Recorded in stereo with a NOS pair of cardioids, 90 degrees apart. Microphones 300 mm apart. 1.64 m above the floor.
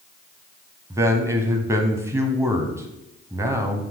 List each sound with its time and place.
0.9 s a man speaking: 10° right, 0.7 m